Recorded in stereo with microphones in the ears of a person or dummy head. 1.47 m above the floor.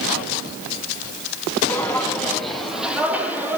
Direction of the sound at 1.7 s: 5° left (ahead or behind).